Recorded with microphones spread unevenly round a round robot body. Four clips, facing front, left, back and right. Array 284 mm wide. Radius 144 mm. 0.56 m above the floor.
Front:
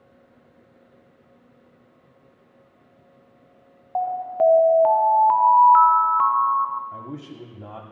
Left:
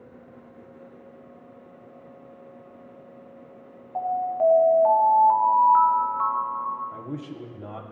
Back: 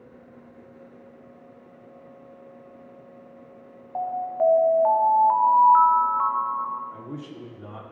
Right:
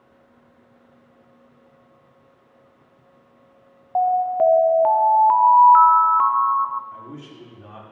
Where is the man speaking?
40° left, 1.5 m.